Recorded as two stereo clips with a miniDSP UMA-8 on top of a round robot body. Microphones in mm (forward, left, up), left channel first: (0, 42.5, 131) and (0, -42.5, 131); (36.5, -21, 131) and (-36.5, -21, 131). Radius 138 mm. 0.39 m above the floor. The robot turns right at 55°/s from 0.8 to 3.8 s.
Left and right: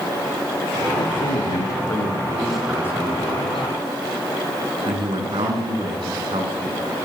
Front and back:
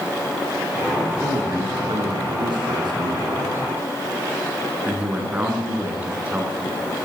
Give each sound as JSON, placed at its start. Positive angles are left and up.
{"t": 0.9, "sound": "a man speaking", "azimuth_deg": 95, "distance_m": 7.5}